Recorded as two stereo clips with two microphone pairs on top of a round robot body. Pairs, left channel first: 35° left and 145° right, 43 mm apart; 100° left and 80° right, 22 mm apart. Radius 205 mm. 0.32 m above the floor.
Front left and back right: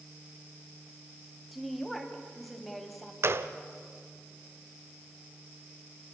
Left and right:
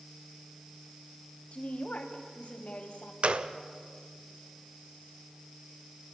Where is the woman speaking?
125° left, 3 m.